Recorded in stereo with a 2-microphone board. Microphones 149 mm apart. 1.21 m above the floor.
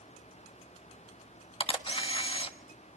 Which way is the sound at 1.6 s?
35° left (ahead or behind).